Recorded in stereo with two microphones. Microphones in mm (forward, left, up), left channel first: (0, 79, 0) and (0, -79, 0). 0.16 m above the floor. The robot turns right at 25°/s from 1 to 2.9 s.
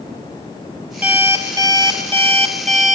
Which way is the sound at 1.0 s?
170° right.